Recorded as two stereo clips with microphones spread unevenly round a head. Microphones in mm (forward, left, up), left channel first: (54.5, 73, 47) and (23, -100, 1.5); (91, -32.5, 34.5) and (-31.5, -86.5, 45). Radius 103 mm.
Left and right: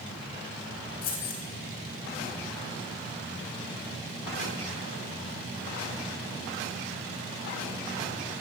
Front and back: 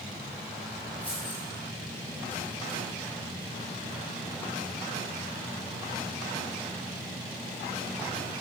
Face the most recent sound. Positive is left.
turn(degrees=110)